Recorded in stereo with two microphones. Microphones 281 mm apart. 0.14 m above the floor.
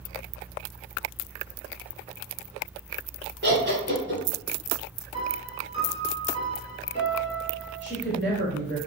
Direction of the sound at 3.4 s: 40° right (ahead or behind).